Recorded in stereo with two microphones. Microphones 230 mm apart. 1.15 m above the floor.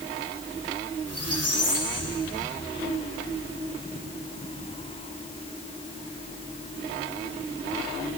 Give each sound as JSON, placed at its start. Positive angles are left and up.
{"t": 1.1, "sound": "a squeak", "side_deg": 75, "distance_m": 3.5}